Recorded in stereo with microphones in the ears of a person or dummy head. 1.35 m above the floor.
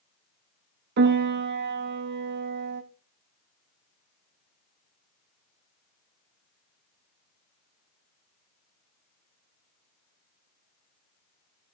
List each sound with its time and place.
1.0 s a piano: 55° right (ahead or behind), 1.4 m